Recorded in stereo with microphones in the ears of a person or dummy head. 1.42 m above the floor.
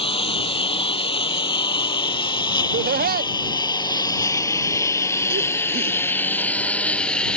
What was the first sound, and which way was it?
A lawn mower, 35° left (ahead or behind).